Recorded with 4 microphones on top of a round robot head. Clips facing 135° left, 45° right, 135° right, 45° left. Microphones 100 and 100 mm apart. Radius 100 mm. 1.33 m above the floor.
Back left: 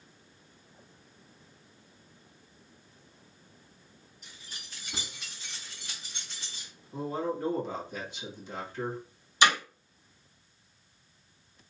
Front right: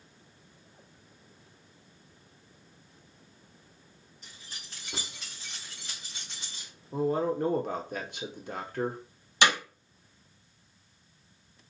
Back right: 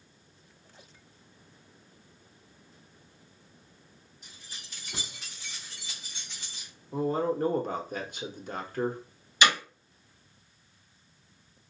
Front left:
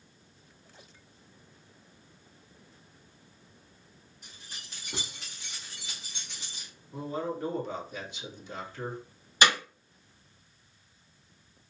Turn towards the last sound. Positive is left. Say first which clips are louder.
# back left 1 dB, even
turn(degrees=-10)